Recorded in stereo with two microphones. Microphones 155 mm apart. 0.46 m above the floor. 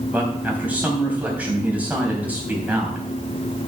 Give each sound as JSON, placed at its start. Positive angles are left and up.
{"t": 0.1, "sound": "a man speaking", "side_deg": -10, "distance_m": 3.5}